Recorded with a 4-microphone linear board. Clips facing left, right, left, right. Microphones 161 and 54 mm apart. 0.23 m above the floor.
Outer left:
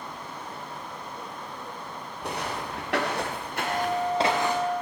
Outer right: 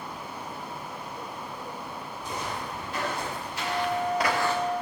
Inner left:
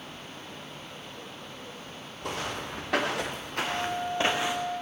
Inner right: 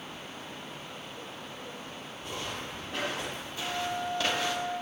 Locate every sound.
2.2 s footsteps: 70° left (ahead or behind), 2.5 m; by 4.6 s 15° left (ahead or behind), 2 m
3.6 s a flute: 55° right (ahead or behind), 3.5 m